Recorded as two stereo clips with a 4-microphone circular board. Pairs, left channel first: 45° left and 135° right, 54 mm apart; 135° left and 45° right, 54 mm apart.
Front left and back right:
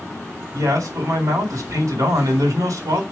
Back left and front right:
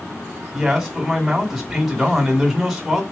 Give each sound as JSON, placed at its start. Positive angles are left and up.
{"t": 0.5, "sound": "a man speaking", "azimuth_deg": -135, "distance_m": 2.0}